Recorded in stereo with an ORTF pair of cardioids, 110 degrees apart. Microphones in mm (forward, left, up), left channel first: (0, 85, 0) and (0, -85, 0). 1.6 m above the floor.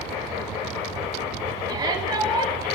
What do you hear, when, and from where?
1.7 s a shout: 20° right, 7.5 m